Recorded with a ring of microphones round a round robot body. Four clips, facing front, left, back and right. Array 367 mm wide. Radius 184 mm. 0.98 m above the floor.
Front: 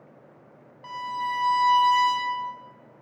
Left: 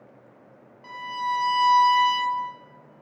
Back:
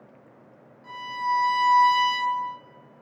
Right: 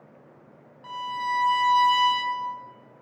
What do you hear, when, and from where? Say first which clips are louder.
0.8 s a violin: even, back 2 dB; 10° right, 1.6 m